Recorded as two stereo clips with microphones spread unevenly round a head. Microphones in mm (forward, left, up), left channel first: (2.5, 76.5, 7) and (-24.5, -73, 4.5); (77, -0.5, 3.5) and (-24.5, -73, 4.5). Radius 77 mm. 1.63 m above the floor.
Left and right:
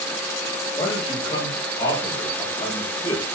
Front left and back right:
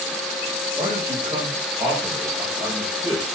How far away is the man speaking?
About 9 m.